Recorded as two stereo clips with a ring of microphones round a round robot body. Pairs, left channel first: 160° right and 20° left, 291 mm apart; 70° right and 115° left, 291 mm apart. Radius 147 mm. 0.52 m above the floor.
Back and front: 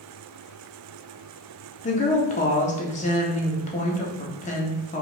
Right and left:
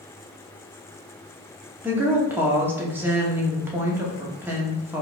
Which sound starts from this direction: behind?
A woman speaking, at 1.8 s.